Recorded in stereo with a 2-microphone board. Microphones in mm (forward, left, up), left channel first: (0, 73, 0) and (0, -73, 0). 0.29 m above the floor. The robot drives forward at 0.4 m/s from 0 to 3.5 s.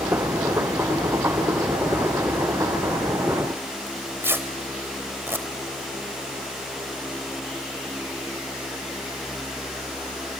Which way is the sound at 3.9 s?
15° right (ahead or behind).